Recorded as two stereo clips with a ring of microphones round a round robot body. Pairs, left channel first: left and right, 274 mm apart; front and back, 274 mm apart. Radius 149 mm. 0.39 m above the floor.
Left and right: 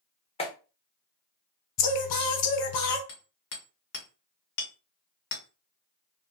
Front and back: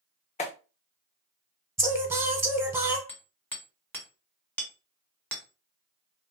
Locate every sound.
0.4 s a clap: 40° left, 0.8 m
1.8 s singing: 100° left, 0.9 m
3.1 s hammering: 80° left, 1.2 m